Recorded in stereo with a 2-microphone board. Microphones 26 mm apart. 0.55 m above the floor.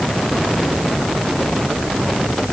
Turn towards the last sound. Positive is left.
No sound to turn to.